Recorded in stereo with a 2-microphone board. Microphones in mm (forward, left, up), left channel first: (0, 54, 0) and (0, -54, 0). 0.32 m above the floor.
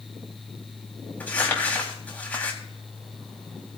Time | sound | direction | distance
1.2 | crumpling | 15° left (ahead or behind) | 2.5 m